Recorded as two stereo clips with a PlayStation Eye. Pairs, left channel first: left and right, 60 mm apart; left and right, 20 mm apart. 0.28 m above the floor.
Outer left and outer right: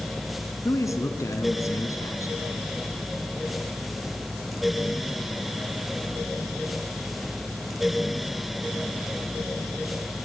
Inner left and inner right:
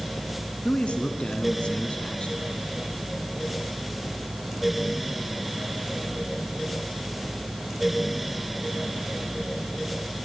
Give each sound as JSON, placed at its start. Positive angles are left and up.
{"t": 0.7, "sound": "a man speaking", "side_deg": 65, "distance_m": 2.5}